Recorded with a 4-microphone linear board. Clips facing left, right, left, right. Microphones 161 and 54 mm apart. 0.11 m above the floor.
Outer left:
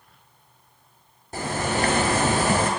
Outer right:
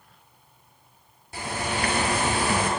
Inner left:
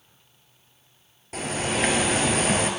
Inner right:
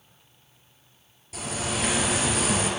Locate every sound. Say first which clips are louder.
1.3 s a bird: outer left 4 dB, inner left 4 dB; 45° left (ahead or behind), 0.7 m